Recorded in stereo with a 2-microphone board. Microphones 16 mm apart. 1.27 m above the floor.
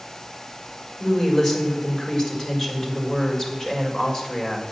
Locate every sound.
1.0 s a woman speaking: 50° left (ahead or behind), 6 m